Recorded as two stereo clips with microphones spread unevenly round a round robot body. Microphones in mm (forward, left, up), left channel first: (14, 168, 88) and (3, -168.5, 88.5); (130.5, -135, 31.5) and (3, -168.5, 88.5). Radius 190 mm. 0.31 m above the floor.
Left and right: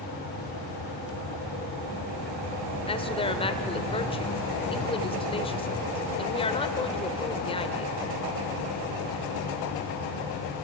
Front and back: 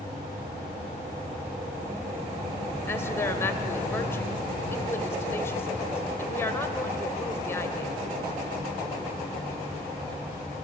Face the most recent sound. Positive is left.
turn(degrees=20)